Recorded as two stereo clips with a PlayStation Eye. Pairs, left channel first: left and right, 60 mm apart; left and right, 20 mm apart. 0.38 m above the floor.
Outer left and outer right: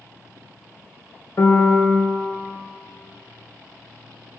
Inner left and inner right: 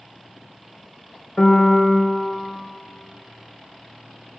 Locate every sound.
1.4 s a piano: 50° left (ahead or behind), 0.9 m